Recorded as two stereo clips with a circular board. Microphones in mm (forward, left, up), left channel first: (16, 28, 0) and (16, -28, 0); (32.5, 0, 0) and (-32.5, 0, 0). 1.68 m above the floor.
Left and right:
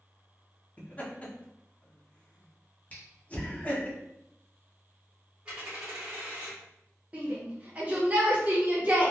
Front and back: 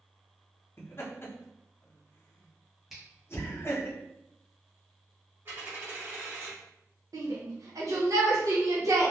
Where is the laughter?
35° left, 0.7 m.